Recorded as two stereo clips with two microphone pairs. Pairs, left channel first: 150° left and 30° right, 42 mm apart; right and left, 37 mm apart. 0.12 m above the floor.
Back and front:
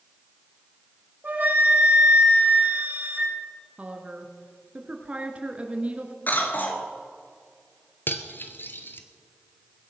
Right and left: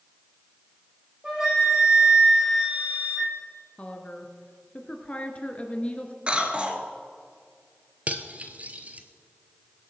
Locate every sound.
1.2 s a flute: 20° left, 5 m
3.8 s a woman speaking: 60° right, 1.7 m
6.3 s a cough: 140° left, 1.8 m
8.1 s cutlery clinking: 130° left, 1.2 m